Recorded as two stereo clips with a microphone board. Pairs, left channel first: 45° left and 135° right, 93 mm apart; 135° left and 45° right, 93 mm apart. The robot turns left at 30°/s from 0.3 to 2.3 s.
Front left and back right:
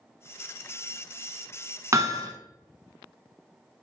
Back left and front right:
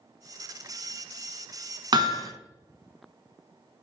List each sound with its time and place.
1.9 s hammering: 80° right, 1.1 m; by 2.3 s 95° right, 1.1 m